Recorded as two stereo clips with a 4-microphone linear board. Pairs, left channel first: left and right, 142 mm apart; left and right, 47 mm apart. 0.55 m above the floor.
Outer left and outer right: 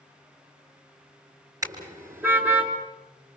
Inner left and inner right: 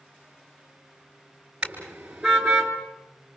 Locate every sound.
1.6 s a car horn: 25° right (ahead or behind), 4 m; by 2.7 s 10° right (ahead or behind), 3.5 m